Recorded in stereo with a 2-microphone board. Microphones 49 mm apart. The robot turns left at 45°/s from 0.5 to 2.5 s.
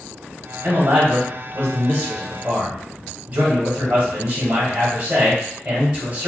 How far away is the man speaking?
About 1.5 m.